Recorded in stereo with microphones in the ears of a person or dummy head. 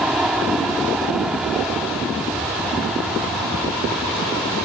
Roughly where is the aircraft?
Centre.